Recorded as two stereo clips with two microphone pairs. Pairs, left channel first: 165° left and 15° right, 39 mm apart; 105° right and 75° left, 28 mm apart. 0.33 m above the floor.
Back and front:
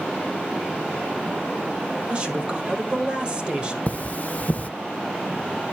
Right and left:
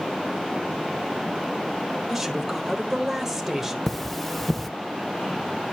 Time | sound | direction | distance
2.1 | a man speaking | straight ahead | 1.2 m
3.9 | cutlery clinking | straight behind | 0.6 m